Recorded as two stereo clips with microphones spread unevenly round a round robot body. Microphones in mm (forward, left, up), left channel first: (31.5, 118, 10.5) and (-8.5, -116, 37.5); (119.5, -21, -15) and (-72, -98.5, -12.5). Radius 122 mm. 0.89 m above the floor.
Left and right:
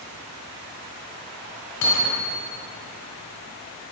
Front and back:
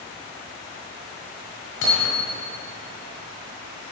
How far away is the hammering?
About 5 m.